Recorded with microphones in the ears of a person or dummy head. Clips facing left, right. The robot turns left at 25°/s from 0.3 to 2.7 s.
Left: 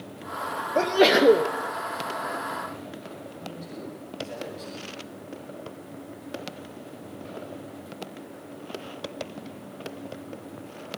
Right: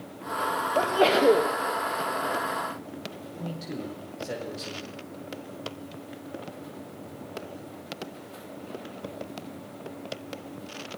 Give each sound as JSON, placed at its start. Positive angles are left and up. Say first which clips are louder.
{"t": 0.8, "sound": "a sneeze", "louder": "left 3 dB", "side_deg": 30, "distance_m": 1.1}
{"t": 3.4, "sound": "a man speaking", "louder": "right 5 dB", "side_deg": -75, "distance_m": 4.5}